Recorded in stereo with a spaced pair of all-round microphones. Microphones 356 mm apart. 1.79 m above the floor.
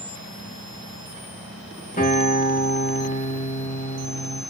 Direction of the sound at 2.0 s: 20° left (ahead or behind).